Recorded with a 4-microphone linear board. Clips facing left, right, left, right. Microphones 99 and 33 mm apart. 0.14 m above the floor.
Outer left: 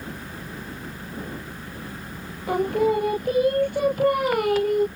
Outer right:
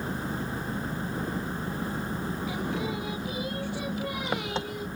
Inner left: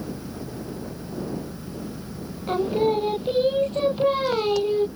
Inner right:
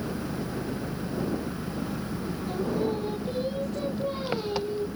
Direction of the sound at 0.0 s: 25° right (ahead or behind).